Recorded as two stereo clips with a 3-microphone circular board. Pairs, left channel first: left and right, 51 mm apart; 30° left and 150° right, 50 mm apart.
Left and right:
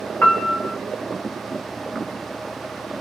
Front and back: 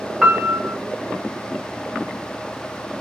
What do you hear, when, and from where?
0.2 s a piano: 130° left, 1.3 m